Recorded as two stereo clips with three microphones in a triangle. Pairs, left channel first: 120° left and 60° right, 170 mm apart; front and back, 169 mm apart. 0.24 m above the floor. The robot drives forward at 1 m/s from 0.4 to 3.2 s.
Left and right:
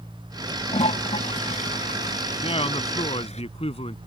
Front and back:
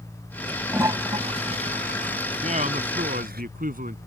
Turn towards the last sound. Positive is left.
turn(degrees=165)